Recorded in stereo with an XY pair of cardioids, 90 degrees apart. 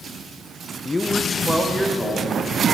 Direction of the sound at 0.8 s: 40° left.